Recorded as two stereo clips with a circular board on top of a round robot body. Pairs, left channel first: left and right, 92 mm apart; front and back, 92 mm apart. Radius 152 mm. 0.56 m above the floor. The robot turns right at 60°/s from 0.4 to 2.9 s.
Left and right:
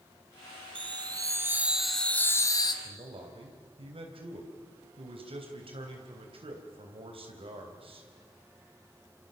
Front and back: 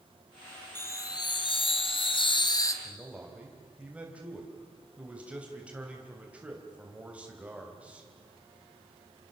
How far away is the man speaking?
About 3.5 m.